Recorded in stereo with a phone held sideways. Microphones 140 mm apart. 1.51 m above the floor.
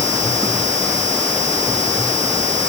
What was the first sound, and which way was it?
Only background noise.